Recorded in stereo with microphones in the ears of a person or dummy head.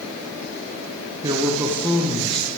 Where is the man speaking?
20° right (ahead or behind), 0.8 m; by 2.5 s 5° left (ahead or behind), 1.2 m.